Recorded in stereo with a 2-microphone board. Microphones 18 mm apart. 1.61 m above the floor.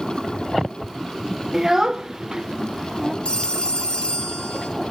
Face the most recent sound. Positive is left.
turn(degrees=70)  # may be behind; listen again after turning